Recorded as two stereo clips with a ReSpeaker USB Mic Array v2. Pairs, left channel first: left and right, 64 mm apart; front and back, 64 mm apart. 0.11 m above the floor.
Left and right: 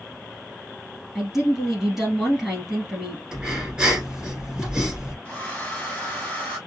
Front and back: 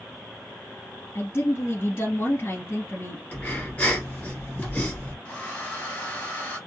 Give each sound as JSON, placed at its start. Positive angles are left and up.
{"t": 1.1, "sound": "a woman speaking", "azimuth_deg": 0, "distance_m": 1.6}
{"t": 3.3, "sound": "breathing", "azimuth_deg": -30, "distance_m": 1.6}
{"t": 5.2, "sound": "a hair dryer", "azimuth_deg": 40, "distance_m": 2.0}